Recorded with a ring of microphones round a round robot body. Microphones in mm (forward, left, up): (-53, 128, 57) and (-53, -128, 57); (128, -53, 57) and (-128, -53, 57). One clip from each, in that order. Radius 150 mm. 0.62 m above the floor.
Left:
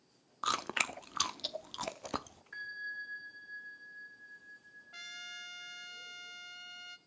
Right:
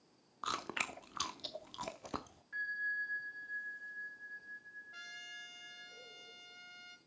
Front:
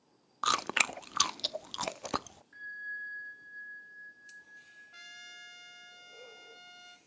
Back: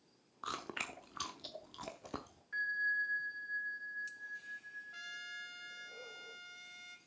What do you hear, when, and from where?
0.4 s chewing: 20° left, 0.5 m
2.5 s a bell: 150° left, 2.0 m
4.9 s a trumpet: 85° left, 1.3 m